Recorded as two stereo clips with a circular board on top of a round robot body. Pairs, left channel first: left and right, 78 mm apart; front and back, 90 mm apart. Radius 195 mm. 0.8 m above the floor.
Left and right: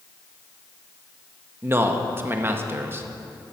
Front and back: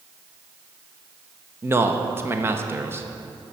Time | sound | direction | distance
1.6 | a man speaking | 130° right | 1.1 m